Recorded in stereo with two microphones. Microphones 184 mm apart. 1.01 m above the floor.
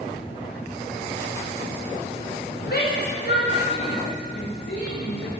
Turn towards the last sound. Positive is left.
turn(degrees=70)  # may be behind; listen again after turning